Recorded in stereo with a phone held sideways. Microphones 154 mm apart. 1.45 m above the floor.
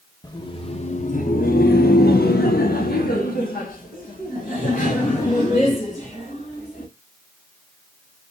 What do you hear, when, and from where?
0.2 s laughter: 25° left (ahead or behind), 0.9 m; by 6.9 s 55° left (ahead or behind), 3.5 m